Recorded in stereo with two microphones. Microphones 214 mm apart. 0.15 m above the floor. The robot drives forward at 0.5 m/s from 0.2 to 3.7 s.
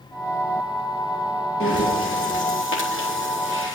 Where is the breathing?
75° left (ahead or behind), 4 m; by 3.8 s 65° left (ahead or behind), 4.5 m.